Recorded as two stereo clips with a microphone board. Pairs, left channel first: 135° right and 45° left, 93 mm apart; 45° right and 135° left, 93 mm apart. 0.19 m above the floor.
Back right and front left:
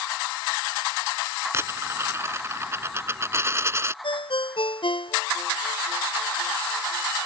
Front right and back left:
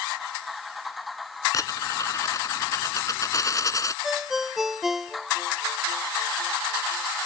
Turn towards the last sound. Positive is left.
turn(degrees=-140)